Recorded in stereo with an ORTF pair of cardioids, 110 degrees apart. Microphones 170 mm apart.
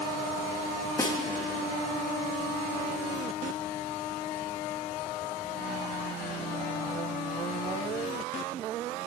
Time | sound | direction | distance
1.0 | a snare drum | 15° left | 1.5 m